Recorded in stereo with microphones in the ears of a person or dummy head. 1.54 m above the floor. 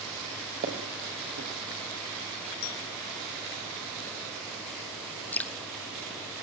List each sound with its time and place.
0.6 s footsteps: 45° right (ahead or behind), 4 m
2.6 s a clink: 70° left (ahead or behind), 1.9 m
5.3 s dripping: 10° left (ahead or behind), 1.3 m